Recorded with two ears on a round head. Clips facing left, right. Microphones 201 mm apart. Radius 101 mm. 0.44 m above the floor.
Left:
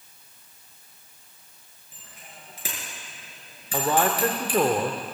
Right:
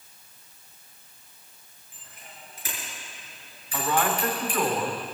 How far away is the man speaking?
About 1.2 m.